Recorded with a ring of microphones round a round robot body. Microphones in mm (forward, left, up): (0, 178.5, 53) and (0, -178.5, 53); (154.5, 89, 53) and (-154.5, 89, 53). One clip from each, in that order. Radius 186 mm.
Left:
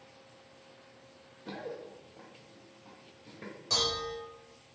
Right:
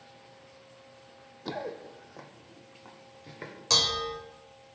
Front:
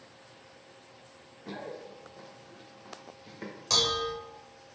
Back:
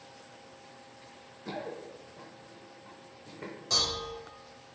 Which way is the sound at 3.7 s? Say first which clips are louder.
Right 5 dB, front 3 dB; 55° right.